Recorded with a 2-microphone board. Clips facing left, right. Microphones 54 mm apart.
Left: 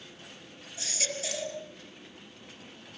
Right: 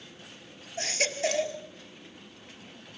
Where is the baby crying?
45° right (ahead or behind), 2 m.